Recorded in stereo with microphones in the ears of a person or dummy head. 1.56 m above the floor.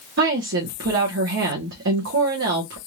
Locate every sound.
0.2 s a woman speaking: 65° right (ahead or behind), 1.1 m